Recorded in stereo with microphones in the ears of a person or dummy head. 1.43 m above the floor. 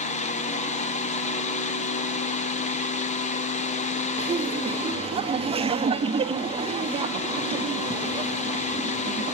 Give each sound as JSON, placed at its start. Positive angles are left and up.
{"t": 0.0, "sound": "a fan", "side_deg": 30, "distance_m": 0.8}
{"t": 4.2, "sound": "laughter", "side_deg": -30, "distance_m": 0.7}